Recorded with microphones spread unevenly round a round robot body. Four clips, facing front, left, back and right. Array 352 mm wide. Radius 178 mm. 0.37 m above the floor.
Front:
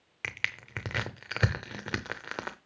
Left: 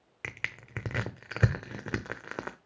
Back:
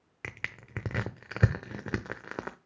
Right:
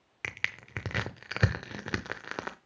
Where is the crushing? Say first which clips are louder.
Right 2 dB, front 4 dB; 170° left, 0.7 m.